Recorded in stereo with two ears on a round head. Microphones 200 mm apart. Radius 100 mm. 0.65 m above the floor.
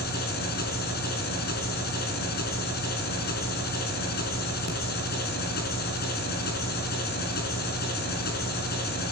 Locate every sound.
0.0 s an engine running: 50° left (ahead or behind), 4 m